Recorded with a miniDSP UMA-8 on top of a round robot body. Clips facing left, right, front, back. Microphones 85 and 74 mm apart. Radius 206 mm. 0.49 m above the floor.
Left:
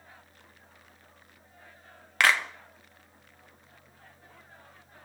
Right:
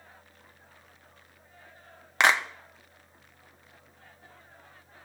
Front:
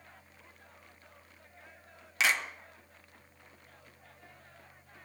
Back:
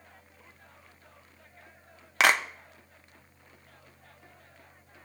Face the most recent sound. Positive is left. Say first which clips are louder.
# right 1 dB, back 6 dB
turn(degrees=-155)